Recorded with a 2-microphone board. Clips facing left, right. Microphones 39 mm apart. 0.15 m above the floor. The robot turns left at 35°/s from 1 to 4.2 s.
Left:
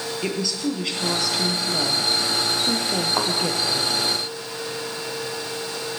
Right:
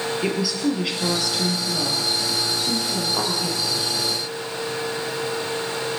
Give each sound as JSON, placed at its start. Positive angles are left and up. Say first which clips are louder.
{"t": 0.2, "sound": "a woman speaking", "louder": "right 2 dB", "azimuth_deg": -175, "distance_m": 2.5}
{"t": 3.2, "sound": "a thud", "louder": "left 2 dB", "side_deg": 35, "distance_m": 5.0}